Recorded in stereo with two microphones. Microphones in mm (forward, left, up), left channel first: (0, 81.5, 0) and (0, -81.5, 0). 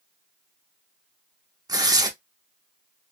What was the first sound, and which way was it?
Tearing paper, 25° right (ahead or behind).